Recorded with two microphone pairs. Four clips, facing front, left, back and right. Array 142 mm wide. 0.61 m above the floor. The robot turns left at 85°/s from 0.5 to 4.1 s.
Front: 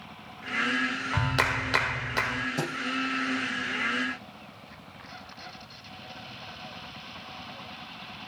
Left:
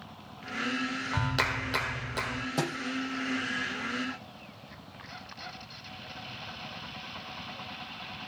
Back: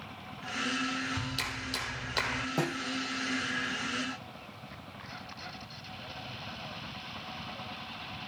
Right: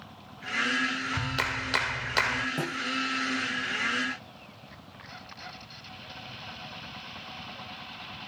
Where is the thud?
120° left, 6.5 m; by 2.8 s 105° left, 6.5 m.